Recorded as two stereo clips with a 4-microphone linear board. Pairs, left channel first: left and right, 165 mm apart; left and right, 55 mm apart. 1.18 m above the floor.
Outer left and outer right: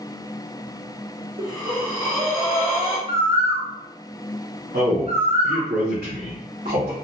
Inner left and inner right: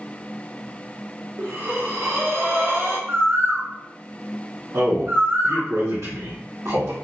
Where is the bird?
45° right (ahead or behind), 0.9 m.